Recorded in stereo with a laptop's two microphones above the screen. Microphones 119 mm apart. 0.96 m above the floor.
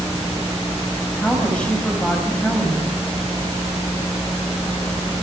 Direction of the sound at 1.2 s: 10° left (ahead or behind).